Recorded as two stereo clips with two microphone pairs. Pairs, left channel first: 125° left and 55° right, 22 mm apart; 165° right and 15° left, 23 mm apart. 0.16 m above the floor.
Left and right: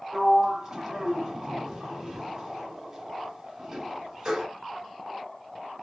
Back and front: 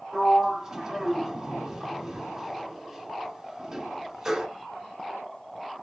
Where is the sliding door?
20° right, 1.5 m.